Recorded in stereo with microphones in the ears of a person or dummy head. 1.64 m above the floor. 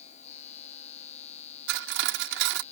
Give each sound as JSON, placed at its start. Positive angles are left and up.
{"t": 0.0, "sound": "a machine running", "side_deg": 30}
{"t": 1.7, "sound": "cutlery clinking", "side_deg": -65}